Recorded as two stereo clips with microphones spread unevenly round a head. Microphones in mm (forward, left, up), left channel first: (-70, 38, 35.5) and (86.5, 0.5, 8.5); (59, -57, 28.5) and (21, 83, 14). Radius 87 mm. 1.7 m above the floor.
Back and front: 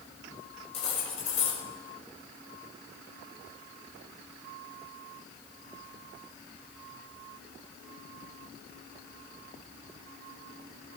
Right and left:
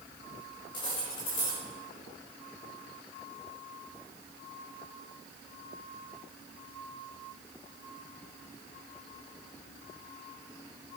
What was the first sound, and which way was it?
Cutlery clinking, 140° right.